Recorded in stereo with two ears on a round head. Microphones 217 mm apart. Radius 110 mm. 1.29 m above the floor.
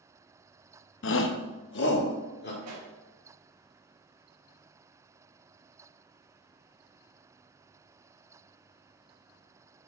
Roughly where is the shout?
Left.